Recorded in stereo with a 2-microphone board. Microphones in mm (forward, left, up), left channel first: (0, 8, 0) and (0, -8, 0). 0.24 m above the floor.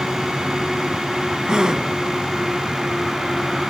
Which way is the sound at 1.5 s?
60° right (ahead or behind).